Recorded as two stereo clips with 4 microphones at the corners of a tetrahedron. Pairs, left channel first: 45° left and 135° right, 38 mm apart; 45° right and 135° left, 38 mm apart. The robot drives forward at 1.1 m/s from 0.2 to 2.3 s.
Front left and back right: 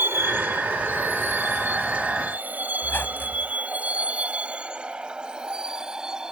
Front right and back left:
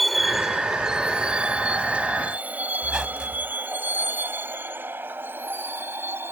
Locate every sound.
0.0 s a vehicle: 135° right; by 6.3 s 150° left
2.8 s a squeak: 65° left